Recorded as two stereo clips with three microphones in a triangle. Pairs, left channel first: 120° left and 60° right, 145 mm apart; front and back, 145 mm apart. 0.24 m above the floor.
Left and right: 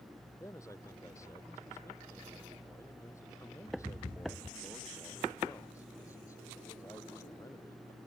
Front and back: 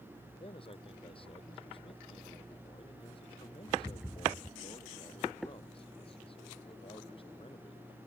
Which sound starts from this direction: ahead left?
A man speaking, at 0.4 s.